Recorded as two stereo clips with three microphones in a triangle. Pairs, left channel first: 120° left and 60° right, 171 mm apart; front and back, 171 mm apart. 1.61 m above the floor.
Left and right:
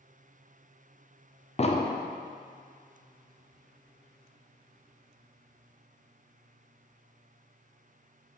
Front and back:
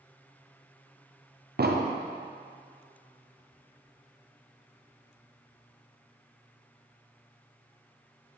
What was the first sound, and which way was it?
An explosion, 170° left.